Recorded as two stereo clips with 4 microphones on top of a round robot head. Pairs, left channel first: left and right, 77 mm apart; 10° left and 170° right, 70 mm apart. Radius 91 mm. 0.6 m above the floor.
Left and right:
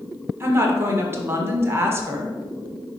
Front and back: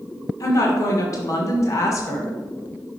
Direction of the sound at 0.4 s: 35° right.